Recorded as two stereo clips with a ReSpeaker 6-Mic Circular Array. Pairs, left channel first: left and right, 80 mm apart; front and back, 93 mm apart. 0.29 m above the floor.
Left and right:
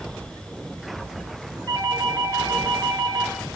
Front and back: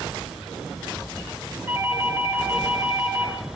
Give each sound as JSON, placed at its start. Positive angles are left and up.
{"t": 1.7, "sound": "a doorbell", "azimuth_deg": -120, "distance_m": 5.5}